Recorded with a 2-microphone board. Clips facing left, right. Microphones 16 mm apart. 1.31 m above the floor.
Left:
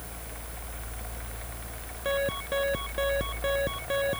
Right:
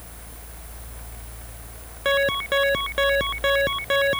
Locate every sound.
2.0 s an alarm: 30° right (ahead or behind)